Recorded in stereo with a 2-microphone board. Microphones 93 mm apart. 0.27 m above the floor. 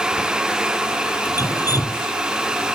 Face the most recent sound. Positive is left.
turn(degrees=40)  # may be behind; listen again after turning